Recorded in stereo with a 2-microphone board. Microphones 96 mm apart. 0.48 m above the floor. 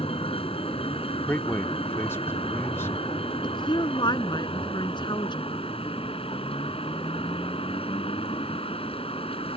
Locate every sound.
0.0 s a vehicle: 80° left
1.3 s a man speaking: 25° left (ahead or behind)
3.4 s a woman speaking: 55° left (ahead or behind)